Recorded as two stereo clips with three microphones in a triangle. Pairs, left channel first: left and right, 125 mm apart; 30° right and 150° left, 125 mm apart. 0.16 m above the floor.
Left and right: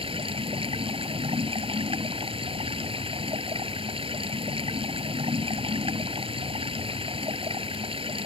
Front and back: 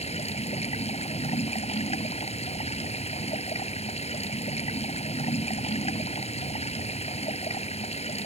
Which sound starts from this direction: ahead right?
Running water, at 0.0 s.